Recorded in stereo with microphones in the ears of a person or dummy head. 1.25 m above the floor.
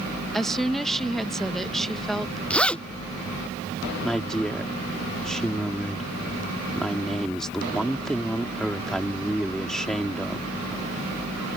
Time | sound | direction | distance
0.3 | a woman speaking | centre (ahead or behind) | ?
2.5 | a zipper | 5° left (ahead or behind) | ?
4.0 | a woman speaking | 5° left (ahead or behind) | ?